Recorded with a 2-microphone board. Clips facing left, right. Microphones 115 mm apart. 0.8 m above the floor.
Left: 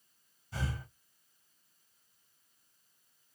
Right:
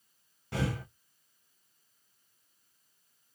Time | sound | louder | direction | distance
0.5 | breathing | right 7 dB | 75° right (ahead or behind) | 0.6 m